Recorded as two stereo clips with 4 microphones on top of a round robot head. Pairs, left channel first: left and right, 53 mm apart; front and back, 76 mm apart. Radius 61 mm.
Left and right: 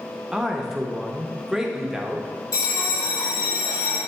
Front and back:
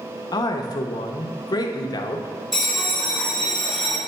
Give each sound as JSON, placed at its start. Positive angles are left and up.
{"t": 0.3, "sound": "a man speaking", "azimuth_deg": -10, "distance_m": 0.7}
{"t": 2.5, "sound": "a bell", "azimuth_deg": 90, "distance_m": 2.0}